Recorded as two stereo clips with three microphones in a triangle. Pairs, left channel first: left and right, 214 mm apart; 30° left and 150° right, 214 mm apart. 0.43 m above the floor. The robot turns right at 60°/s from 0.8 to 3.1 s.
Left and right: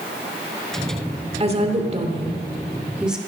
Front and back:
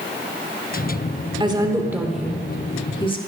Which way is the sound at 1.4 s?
110° right.